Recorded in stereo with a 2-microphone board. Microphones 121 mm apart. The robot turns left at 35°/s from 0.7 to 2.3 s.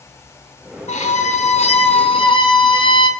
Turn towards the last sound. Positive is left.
turn(degrees=45)